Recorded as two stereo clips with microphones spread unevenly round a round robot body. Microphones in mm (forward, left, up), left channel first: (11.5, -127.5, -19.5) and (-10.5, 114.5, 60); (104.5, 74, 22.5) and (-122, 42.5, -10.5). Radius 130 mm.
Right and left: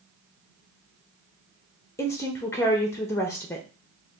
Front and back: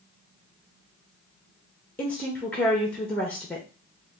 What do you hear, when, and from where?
2.0 s a woman speaking: 85° right, 0.6 m